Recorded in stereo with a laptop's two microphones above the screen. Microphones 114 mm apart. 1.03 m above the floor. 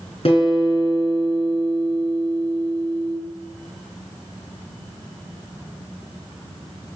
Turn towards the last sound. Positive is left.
turn(degrees=55)  # may be behind; listen again after turning